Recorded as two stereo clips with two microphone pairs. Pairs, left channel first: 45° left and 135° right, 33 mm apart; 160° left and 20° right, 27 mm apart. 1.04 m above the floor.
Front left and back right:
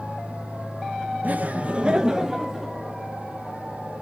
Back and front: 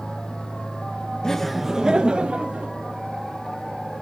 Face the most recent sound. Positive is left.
turn(degrees=-55)